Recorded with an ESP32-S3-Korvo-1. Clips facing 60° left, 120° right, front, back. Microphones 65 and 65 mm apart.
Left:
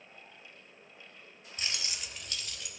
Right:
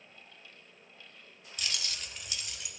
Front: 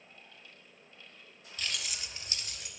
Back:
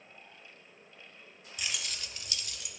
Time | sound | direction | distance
1.6 | keys jangling | 110° left | 0.8 m